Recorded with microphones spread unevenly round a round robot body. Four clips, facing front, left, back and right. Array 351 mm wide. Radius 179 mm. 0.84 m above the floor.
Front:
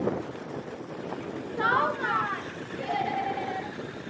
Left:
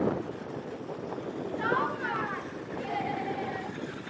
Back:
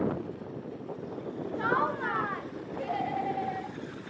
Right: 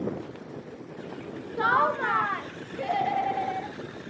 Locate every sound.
1.6 s laughter: 50° right, 0.9 m; by 3.8 s 90° right, 1.9 m